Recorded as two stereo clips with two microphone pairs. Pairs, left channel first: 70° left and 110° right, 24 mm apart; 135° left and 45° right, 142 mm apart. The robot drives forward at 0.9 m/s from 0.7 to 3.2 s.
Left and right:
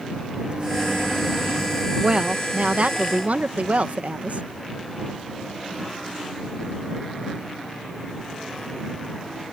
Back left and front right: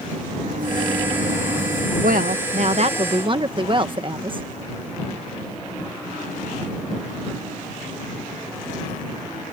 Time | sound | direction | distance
0.4 | a microwave | 65° right | ?
2.0 | a woman speaking | 60° right | ?